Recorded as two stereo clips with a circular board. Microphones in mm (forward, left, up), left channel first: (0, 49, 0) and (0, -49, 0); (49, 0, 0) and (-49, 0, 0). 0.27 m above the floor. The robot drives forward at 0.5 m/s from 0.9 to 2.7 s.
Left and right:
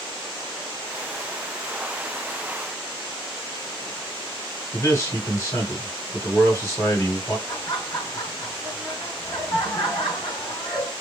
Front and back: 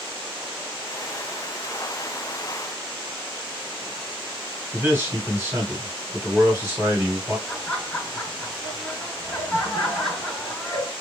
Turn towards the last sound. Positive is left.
turn(degrees=85)